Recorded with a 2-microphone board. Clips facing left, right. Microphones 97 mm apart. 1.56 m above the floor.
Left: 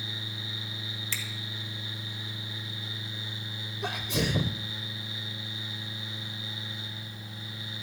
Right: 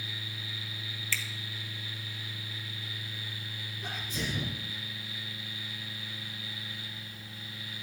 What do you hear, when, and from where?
1.1 s a finger snap: 20° left (ahead or behind), 1.6 m
3.8 s a sneeze: 70° left (ahead or behind), 0.8 m